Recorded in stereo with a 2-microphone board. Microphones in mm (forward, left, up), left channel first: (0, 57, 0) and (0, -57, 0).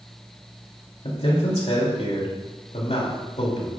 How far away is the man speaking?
About 2.5 m.